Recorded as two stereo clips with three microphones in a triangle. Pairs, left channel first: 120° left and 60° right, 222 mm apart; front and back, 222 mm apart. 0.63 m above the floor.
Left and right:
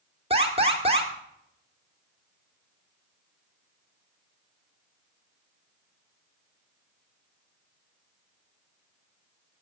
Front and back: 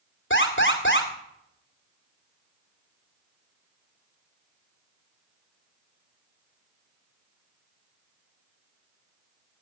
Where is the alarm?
Straight ahead, 2 m.